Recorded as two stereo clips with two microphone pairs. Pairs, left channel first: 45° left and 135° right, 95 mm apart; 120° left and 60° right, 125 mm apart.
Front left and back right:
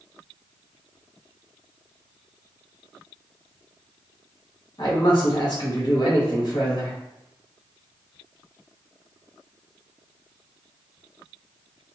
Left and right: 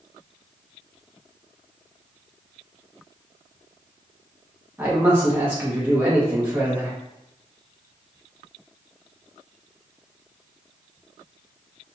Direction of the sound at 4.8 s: 10° left.